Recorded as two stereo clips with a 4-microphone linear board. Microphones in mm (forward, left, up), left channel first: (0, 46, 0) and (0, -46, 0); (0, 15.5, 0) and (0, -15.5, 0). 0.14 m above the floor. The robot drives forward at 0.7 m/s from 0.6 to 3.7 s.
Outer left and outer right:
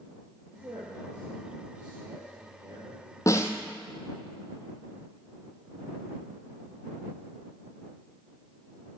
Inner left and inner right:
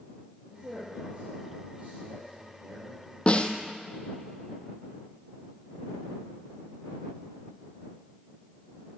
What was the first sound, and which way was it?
A man speaking, 45° right (ahead or behind).